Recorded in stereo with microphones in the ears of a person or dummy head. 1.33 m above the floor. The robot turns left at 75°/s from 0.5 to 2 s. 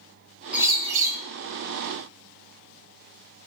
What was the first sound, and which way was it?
A bird, 5° right.